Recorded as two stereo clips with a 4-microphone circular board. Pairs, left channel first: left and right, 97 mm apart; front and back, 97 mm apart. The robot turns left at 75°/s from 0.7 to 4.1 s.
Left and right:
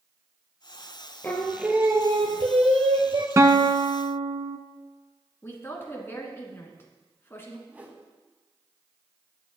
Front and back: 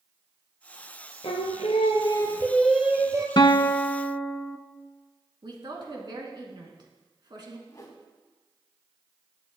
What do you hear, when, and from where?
1.2 s singing: 20° left, 1.1 m; by 3.3 s 130° right, 1.1 m
3.4 s a guitar: 30° right, 0.7 m; by 4.6 s 85° right, 0.7 m
5.4 s a woman speaking: 150° left, 2.5 m
7.7 s a whoosh: 25° right, 1.8 m